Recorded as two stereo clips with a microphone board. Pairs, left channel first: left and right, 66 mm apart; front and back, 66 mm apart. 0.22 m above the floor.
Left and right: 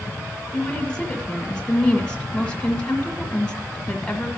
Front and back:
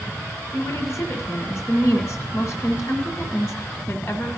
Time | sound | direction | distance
0.5 | a woman speaking | 15° left | 1.6 m